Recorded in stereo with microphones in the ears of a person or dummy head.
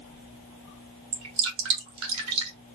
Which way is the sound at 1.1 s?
80° right.